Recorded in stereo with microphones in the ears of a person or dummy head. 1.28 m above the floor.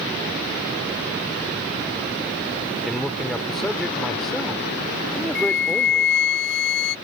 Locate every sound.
2.9 s a man speaking: centre (ahead or behind)
5.3 s a flute: 70° left (ahead or behind)